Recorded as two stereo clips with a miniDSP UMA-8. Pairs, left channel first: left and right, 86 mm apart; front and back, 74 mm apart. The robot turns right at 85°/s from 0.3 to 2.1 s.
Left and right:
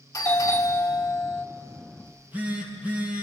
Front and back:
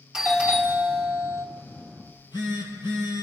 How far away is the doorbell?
About 2.5 m.